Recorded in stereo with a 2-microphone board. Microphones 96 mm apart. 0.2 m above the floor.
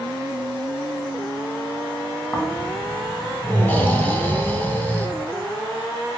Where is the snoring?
15° left (ahead or behind), 0.7 m.